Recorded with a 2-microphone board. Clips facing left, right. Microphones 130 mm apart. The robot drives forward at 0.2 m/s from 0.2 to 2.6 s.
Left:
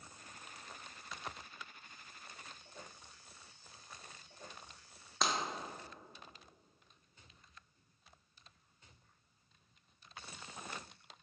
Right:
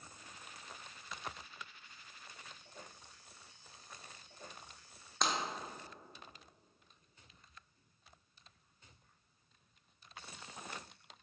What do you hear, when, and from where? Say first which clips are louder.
5.2 s breaking glass: even; centre (ahead or behind), 0.5 m